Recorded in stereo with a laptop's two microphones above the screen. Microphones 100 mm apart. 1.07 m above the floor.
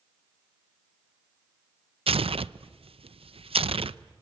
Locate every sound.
2.1 s tearing paper: 75° right (ahead or behind), 0.5 m